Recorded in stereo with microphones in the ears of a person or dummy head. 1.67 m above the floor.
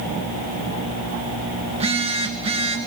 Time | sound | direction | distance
1.7 | a phone buzzing | 30° right (ahead or behind) | 2.0 m